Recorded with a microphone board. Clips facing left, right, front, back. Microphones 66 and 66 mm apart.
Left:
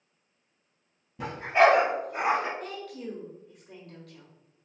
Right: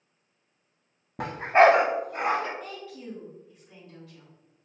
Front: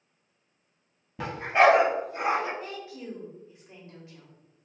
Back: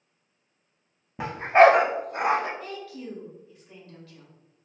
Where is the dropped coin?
I don't hear a dropped coin.